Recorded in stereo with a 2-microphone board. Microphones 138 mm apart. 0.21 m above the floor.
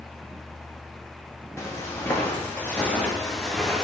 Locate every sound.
1.6 s footsteps: 20° left (ahead or behind), 5.5 m; by 3.8 s centre (ahead or behind), 4 m